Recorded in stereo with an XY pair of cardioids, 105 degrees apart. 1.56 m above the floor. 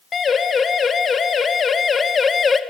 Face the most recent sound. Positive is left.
turn(degrees=35)